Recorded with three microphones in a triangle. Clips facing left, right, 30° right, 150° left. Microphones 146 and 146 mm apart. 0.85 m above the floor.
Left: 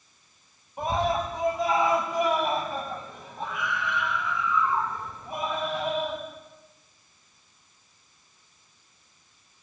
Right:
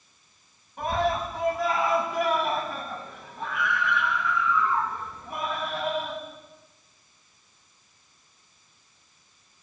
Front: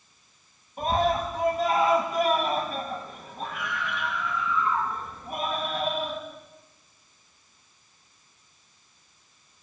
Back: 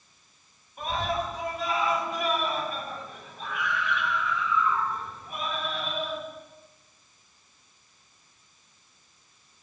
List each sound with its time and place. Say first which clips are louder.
0.8 s a scream: even, front 5 dB; 20° left, 6.5 m